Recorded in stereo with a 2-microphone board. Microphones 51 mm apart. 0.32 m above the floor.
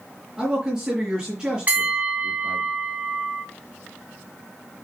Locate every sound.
0.4 s a man speaking: 15° right (ahead or behind), 3.5 m
1.7 s a bell: 35° right (ahead or behind), 2 m